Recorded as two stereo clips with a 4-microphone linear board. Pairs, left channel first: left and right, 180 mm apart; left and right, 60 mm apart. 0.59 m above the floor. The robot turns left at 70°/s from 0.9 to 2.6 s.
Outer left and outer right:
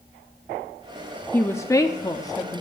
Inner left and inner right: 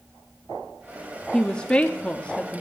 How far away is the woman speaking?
About 0.5 m.